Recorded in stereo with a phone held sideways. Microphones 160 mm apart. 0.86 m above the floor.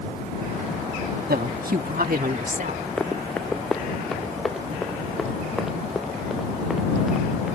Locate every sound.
1.3 s a woman speaking: 70° right (ahead or behind); by 2.9 s 55° right (ahead or behind)
3.0 s running footsteps: 5° left (ahead or behind); by 7.5 s 5° right (ahead or behind)